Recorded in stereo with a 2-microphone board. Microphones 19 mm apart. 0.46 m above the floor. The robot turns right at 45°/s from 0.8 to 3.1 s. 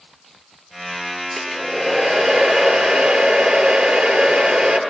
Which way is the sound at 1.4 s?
175° right.